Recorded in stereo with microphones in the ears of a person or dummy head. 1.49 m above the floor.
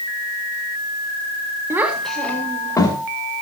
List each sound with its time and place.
1.7 s a child speaking: 15° right (ahead or behind), 2 m; by 3.0 s 20° left (ahead or behind), 3 m